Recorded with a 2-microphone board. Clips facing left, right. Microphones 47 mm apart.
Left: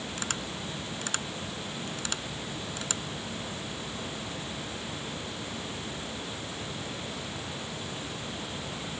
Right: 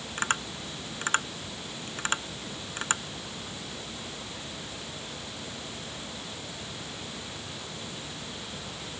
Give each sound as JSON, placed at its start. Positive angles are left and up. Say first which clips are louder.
{"t": 0.2, "sound": "tapping", "louder": "right 8 dB", "side_deg": -35}